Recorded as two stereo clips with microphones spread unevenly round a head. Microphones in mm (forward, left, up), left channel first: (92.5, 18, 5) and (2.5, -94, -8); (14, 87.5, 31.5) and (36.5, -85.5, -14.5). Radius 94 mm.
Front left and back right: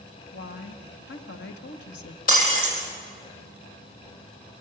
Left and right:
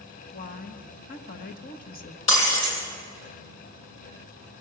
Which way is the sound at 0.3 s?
55° left.